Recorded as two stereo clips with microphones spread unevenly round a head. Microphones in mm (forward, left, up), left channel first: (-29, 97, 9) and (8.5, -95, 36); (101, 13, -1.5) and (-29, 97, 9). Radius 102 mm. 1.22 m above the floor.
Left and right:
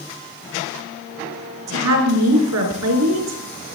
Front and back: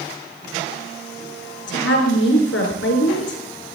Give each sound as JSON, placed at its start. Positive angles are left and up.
{"t": 1.7, "sound": "a woman speaking", "azimuth_deg": -70, "distance_m": 4.0}